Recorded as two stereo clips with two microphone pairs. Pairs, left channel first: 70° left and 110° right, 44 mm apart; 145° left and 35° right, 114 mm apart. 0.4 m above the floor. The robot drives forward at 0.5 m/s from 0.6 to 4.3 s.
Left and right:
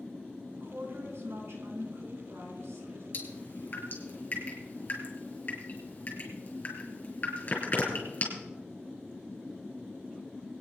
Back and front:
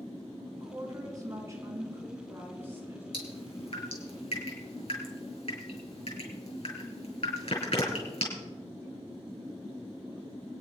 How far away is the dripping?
About 3.5 m.